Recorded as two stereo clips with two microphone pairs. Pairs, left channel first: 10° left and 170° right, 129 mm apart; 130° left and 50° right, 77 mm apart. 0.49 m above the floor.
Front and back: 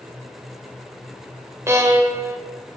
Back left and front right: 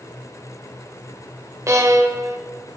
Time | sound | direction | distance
1.7 | a violin | 100° right | 0.8 m